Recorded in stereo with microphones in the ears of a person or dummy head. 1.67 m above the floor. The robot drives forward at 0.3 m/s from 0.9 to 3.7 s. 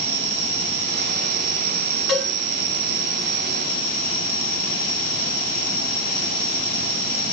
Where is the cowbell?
5° left (ahead or behind), 1.3 m.